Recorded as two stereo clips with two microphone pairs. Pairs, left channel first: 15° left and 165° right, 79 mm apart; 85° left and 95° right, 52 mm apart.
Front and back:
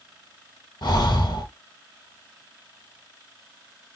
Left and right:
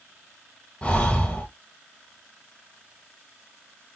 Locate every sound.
0.8 s breathing: 20° left, 0.7 m